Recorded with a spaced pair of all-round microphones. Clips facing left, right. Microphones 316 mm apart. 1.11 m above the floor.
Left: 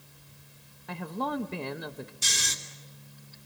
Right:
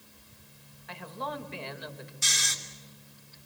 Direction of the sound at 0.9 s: 55° left (ahead or behind).